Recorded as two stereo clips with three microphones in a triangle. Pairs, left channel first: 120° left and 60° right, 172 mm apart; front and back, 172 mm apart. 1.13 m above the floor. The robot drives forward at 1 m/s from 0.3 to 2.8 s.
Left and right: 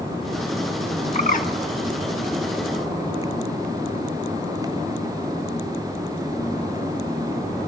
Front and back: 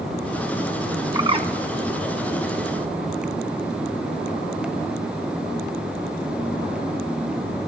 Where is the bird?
115° left, 0.8 m; by 1.5 s 140° left, 1.0 m.